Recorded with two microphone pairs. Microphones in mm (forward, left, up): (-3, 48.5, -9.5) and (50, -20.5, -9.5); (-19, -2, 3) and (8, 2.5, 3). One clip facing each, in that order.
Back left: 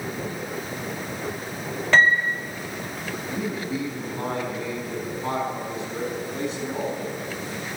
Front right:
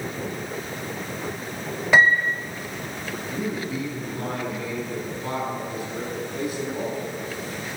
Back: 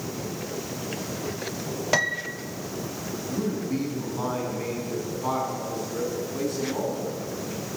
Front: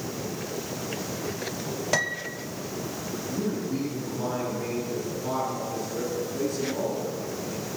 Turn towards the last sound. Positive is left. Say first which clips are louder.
# even, back 1 dB
turn(degrees=-175)